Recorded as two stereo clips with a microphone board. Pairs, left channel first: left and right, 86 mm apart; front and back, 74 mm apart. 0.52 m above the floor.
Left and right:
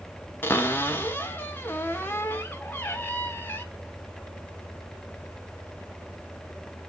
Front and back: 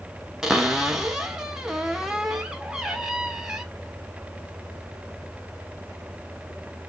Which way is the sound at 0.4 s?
110° left.